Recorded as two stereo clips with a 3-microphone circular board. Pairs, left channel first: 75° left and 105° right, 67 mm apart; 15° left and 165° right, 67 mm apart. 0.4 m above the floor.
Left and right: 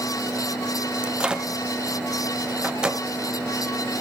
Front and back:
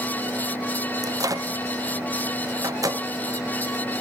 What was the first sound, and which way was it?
A microwave, straight behind.